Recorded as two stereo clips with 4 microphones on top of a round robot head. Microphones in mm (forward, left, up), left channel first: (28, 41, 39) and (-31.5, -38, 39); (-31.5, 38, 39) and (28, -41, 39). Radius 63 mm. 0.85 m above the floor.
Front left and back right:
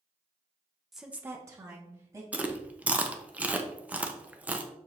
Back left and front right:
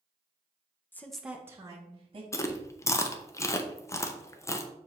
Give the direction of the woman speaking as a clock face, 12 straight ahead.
7 o'clock.